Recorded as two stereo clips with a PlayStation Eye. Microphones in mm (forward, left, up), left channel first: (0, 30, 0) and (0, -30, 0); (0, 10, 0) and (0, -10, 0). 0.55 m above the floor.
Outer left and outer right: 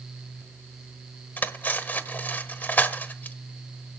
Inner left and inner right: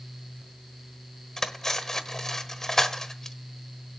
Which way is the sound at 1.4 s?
35° left (ahead or behind).